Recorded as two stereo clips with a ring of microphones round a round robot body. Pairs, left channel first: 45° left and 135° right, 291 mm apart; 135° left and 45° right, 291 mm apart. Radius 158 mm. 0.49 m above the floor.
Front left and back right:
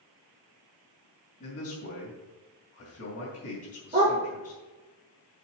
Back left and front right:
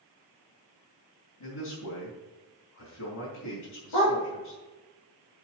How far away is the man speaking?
About 3 m.